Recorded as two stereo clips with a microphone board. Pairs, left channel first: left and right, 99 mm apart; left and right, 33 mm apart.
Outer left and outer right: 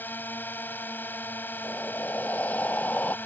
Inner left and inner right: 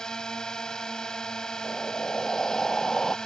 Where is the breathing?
15° left (ahead or behind).